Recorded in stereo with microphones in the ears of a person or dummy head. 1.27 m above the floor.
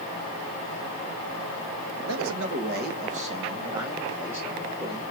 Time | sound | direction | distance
2.1 | a man speaking | 85° right | 1.3 m